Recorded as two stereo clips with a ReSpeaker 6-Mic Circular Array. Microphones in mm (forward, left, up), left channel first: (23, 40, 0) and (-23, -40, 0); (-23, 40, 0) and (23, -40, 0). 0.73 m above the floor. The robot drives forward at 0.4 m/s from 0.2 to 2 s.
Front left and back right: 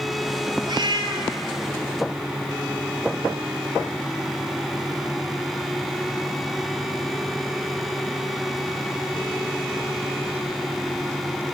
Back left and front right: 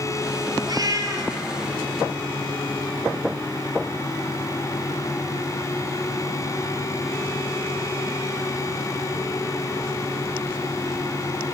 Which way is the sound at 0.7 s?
95° right.